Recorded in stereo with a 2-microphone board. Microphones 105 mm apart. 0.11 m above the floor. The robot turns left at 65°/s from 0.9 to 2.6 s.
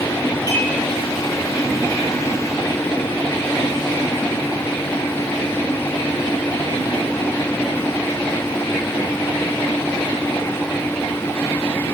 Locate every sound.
0.5 s dishes clattering: 35° right (ahead or behind), 2.5 m